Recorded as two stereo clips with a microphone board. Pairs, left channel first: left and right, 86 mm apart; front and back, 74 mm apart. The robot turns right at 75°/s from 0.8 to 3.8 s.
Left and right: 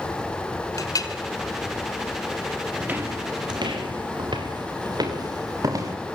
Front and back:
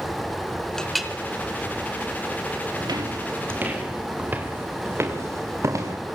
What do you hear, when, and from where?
0.8 s a clink: 75° left, 1.4 m; by 1.1 s 100° left, 1.4 m
2.8 s footsteps: 165° right, 4.5 m; by 6.0 s 135° right, 6 m